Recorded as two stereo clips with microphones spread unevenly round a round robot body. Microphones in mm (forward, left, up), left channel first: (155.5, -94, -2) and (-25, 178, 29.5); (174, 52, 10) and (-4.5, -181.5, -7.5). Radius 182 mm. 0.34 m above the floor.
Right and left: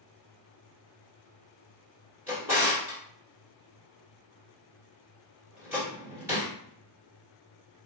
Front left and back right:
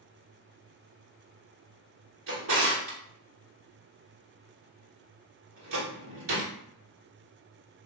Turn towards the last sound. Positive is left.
turn(degrees=-155)